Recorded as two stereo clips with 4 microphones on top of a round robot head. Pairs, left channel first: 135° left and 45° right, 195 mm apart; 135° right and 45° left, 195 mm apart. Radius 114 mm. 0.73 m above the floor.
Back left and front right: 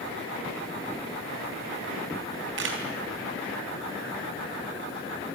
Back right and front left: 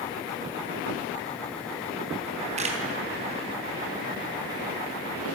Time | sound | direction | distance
2.6 | a camera shutter | 15° right | 4 m